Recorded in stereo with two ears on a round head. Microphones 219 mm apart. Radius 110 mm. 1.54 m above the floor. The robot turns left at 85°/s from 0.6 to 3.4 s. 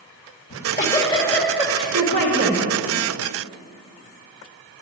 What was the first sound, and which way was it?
A giggle, 70° left.